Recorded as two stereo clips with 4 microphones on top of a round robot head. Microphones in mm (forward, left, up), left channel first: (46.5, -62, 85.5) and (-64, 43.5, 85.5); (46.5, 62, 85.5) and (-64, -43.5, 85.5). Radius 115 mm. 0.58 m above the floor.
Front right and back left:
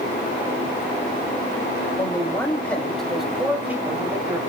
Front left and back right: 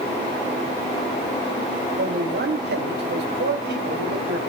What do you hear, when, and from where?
2.0 s a man speaking: 110° right, 4 m; by 4.4 s 155° right, 5 m